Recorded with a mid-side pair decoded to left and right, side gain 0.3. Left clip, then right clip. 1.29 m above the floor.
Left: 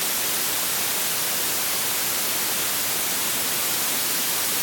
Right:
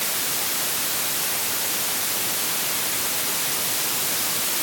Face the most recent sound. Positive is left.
No sound to turn to.